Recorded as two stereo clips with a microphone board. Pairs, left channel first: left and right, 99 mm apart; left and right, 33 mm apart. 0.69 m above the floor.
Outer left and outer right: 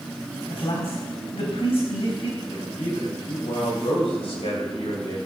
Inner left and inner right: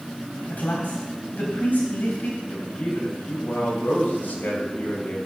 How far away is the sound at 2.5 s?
About 3.5 m.